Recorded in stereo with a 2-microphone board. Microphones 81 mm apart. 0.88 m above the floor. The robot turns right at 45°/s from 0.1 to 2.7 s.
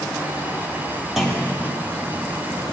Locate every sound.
1.2 s a clunk: 5° right (ahead or behind), 1.1 m; by 1.6 s 15° left (ahead or behind), 1.1 m